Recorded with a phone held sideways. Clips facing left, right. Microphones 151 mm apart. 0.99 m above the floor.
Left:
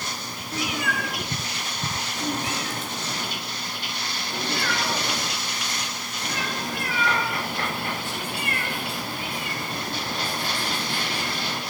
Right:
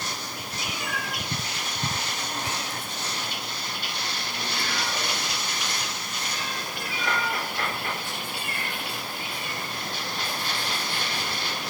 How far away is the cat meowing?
About 4 m.